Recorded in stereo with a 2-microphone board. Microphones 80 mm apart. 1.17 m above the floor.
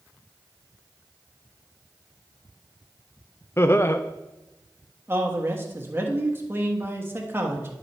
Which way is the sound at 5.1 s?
30° right (ahead or behind).